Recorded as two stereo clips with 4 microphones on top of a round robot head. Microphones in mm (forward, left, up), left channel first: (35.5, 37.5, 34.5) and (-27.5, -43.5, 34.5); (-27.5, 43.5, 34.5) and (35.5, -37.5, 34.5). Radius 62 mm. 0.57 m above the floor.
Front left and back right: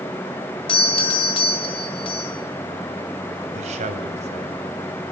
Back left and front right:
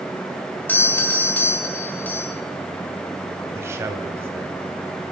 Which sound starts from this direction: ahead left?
A doorbell, at 0.7 s.